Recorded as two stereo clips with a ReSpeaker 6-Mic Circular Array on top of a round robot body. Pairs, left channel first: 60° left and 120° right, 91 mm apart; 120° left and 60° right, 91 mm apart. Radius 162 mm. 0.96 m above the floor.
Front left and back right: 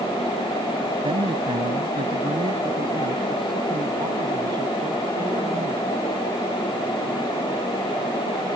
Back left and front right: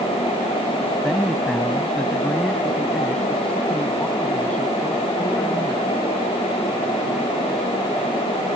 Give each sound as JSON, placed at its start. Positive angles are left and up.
{"t": 1.0, "sound": "a man speaking", "azimuth_deg": -155}